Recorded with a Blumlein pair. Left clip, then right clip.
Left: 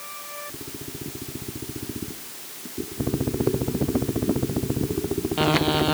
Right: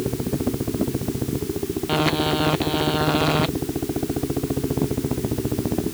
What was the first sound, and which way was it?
Only background noise.